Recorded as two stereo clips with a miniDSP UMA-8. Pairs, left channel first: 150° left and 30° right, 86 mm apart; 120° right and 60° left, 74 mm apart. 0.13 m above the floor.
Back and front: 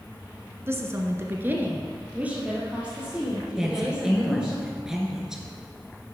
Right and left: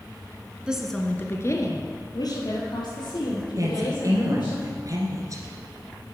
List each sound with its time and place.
0.7 s a woman speaking: 5° right, 1.2 m; by 4.6 s 110° right, 6 m
3.6 s a woman speaking: 50° left, 1.8 m